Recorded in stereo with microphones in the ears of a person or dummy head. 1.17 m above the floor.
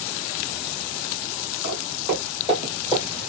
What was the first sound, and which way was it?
Footsteps, 30° right (ahead or behind).